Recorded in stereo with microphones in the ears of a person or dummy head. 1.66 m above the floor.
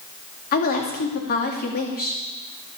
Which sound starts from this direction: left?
A woman speaking, at 0.5 s.